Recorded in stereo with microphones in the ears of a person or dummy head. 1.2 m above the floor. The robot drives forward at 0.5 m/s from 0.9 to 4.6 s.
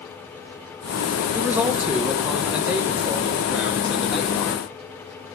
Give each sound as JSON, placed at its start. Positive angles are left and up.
{"t": 1.3, "sound": "a man speaking", "side_deg": -10, "distance_m": 0.8}